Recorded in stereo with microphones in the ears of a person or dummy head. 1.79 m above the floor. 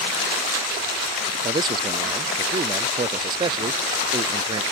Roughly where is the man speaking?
Right.